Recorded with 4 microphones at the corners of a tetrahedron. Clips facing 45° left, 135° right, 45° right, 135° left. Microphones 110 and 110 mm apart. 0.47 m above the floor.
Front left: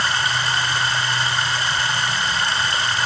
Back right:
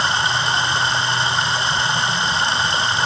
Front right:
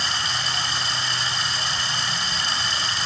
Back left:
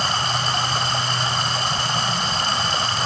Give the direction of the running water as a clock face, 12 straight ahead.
7 o'clock.